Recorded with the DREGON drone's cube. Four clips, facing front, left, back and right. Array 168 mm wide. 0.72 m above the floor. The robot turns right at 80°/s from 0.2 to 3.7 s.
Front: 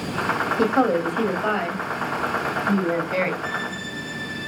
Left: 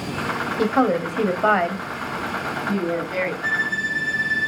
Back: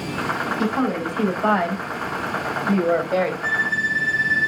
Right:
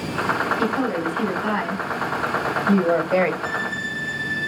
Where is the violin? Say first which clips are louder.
Left 1 dB, back 5 dB; 135° left, 2.5 m; by 4.5 s 155° left, 2.5 m.